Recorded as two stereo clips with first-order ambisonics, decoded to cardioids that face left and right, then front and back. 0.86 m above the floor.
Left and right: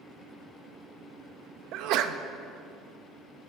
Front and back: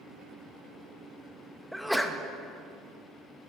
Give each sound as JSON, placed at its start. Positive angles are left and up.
{"t": 1.7, "sound": "a sneeze", "azimuth_deg": -90, "distance_m": 0.6}